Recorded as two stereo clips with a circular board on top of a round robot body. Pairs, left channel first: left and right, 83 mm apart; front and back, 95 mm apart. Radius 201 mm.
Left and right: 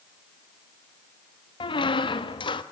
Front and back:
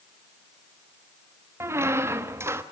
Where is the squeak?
115° left, 1.0 m.